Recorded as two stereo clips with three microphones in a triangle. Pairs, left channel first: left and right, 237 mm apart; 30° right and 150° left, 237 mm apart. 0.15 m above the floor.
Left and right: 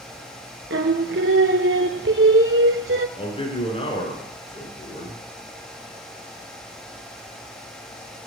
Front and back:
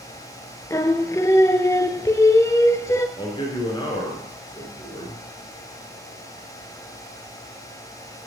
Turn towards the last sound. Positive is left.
turn(degrees=35)